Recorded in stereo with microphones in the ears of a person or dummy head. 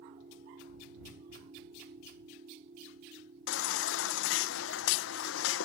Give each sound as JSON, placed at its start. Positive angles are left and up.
{"t": 0.0, "sound": "a machine running", "side_deg": -35}
{"t": 3.5, "sound": "a baby crying", "side_deg": 75}